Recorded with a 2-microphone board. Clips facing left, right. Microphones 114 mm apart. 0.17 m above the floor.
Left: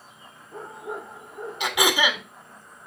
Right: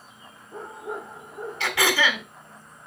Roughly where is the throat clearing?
Centre.